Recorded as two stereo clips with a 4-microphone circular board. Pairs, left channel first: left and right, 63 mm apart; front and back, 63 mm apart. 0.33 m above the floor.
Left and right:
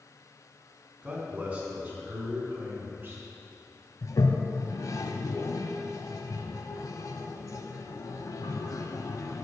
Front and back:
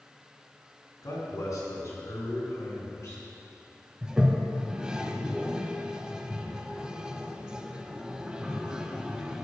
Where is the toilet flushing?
100° left, 0.5 m.